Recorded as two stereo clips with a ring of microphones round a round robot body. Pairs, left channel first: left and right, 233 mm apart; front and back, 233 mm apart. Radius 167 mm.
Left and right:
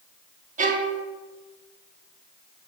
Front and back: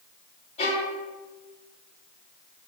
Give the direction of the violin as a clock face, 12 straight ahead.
2 o'clock.